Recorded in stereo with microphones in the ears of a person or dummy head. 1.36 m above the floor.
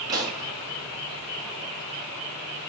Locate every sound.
0.1 s a pop: 25° right (ahead or behind), 0.6 m